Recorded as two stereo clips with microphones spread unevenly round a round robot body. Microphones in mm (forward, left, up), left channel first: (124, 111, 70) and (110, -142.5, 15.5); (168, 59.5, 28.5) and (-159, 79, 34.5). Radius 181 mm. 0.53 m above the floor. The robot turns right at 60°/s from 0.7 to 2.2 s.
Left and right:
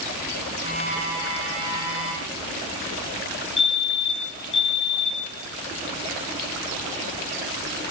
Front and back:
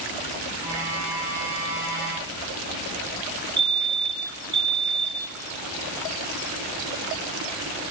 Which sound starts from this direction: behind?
A fire alarm, at 3.6 s.